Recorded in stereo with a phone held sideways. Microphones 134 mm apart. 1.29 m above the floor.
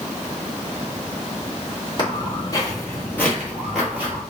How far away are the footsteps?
About 1.7 m.